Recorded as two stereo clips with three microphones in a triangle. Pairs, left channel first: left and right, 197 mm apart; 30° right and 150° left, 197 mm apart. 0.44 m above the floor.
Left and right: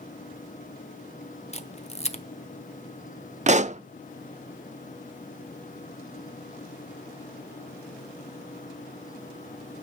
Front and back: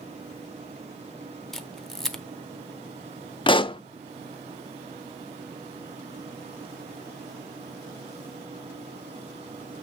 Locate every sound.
1.5 s a camera shutter: 55° left, 0.9 m
3.5 s a pop: 80° right, 0.5 m